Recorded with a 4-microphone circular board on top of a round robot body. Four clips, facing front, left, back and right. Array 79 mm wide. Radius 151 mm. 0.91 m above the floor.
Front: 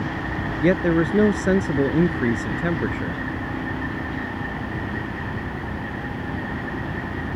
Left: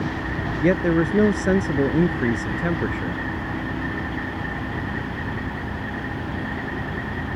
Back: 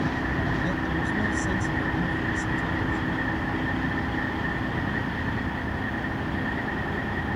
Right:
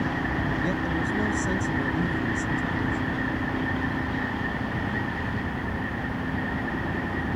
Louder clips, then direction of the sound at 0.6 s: Left 7 dB, front 8 dB; 40° left.